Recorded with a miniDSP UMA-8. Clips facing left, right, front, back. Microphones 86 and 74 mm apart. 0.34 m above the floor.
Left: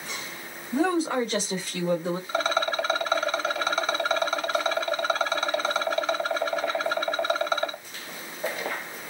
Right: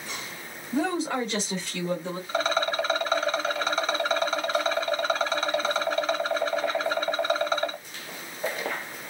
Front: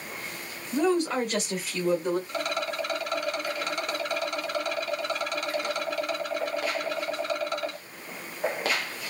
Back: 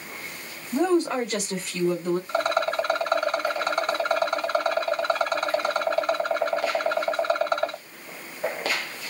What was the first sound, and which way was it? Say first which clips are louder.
A woman speaking: left 3 dB, back 2 dB; 170° left.